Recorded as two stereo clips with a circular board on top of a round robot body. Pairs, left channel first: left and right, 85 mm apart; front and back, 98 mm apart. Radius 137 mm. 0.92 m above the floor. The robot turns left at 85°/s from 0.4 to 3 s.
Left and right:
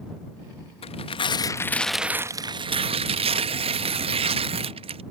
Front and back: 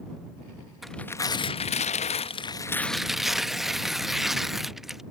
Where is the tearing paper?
95° left; by 5.0 s 90° right.